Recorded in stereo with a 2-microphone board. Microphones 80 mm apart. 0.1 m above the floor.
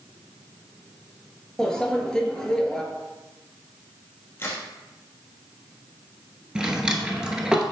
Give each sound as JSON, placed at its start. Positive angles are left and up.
{"t": 1.6, "sound": "a microwave", "side_deg": 10, "distance_m": 1.2}
{"t": 4.4, "sound": "a crack", "side_deg": 30, "distance_m": 2.5}
{"t": 6.5, "sound": "a drawer", "side_deg": -10, "distance_m": 0.9}